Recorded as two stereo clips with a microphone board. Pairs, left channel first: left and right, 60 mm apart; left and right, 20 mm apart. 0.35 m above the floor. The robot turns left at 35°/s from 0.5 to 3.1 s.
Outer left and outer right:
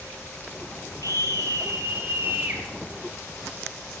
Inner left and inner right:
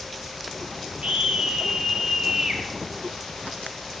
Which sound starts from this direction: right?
A scream, at 1.0 s.